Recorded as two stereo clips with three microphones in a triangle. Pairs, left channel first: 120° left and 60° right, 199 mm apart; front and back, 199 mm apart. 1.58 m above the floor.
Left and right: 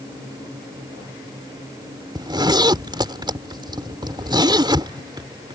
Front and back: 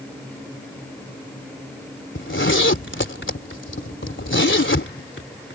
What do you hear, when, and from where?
2.1 s a zipper: 10° left